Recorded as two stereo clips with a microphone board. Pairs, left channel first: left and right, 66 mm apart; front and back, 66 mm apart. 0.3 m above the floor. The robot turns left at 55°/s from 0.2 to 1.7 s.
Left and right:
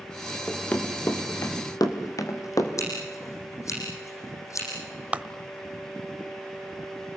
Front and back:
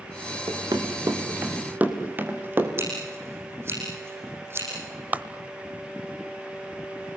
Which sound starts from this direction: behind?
Running footsteps, at 0.5 s.